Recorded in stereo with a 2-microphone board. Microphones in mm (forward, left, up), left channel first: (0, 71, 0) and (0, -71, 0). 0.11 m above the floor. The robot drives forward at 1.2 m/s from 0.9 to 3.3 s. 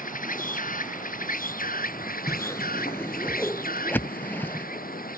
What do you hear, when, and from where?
0.0 s an insect: 70° left (ahead or behind); by 5.2 s 80° left
2.3 s a whoosh: 20° left (ahead or behind); by 4.7 s 15° left (ahead or behind)